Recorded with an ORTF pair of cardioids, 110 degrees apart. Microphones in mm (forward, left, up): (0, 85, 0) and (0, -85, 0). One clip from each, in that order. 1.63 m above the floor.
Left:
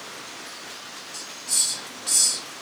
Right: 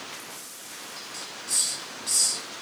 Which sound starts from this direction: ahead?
A hiss, at 1.1 s.